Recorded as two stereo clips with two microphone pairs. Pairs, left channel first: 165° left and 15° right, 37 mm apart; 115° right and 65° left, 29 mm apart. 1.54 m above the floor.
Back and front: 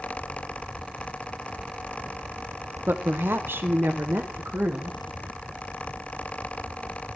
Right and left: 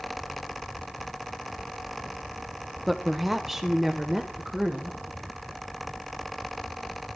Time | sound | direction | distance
2.9 | a woman speaking | 30° right | 0.9 m